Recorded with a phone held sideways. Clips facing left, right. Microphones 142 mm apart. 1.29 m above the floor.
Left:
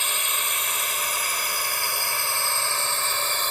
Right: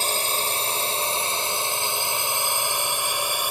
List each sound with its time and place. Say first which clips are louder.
0.0 s a drone: right 5 dB; 35° right (ahead or behind); by 3.5 s 10° right (ahead or behind)